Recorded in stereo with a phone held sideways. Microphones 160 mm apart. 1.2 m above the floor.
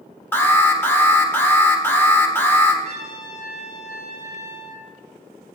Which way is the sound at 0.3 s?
15° left (ahead or behind).